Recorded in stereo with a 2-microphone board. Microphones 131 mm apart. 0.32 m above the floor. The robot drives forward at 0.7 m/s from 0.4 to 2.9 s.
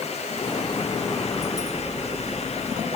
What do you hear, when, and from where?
Only background noise.